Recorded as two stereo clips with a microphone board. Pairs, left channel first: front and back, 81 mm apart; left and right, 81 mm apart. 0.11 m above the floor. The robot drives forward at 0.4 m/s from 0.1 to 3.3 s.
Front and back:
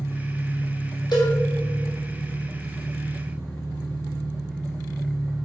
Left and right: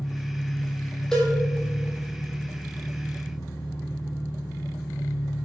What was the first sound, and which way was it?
An engine running, 30° left.